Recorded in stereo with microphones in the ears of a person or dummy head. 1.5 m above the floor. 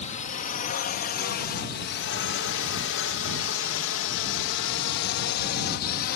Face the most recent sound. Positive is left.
turn(degrees=50)  # may be behind; listen again after turning